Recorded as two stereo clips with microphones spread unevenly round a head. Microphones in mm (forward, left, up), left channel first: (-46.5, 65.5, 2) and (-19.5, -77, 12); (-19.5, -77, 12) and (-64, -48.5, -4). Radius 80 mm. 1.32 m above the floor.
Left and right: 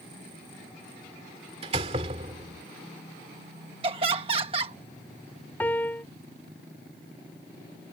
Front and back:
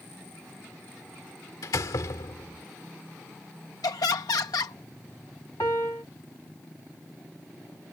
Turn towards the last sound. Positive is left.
turn(degrees=20)